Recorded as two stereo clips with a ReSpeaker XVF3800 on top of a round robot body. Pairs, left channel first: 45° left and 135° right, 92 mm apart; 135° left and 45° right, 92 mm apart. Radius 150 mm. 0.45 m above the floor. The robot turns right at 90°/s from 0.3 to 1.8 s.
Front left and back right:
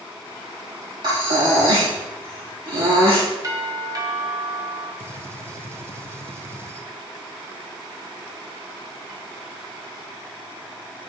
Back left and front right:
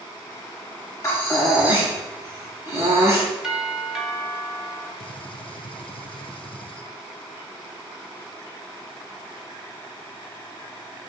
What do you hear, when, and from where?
1.0 s breathing: 175° right, 4.5 m; by 3.2 s 105° right, 4.5 m
3.4 s a doorbell: 125° right, 2.5 m
5.0 s a gunshot: 160° left, 0.9 m